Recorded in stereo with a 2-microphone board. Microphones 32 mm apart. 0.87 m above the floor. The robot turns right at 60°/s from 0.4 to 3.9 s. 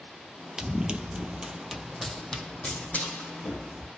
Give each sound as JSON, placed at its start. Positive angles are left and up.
{"t": 0.6, "sound": "running footsteps", "side_deg": -20, "distance_m": 0.9}